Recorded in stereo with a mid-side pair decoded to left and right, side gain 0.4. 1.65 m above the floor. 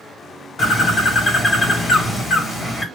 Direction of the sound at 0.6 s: 55° left.